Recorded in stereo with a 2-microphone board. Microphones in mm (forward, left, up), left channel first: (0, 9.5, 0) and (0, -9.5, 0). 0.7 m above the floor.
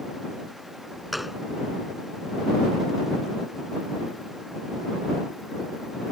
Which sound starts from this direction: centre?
A gunshot, at 1.1 s.